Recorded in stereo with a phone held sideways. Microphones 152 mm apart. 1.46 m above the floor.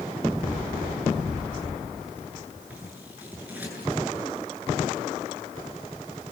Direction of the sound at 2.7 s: 10° right (ahead or behind).